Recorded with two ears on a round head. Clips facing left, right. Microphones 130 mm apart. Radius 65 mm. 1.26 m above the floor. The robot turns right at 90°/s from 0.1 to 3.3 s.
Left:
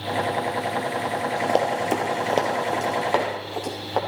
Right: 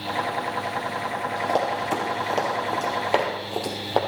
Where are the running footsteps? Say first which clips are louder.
Left 2 dB; 25° left (ahead or behind), 1.7 m; by 4.0 s 35° right (ahead or behind), 3 m.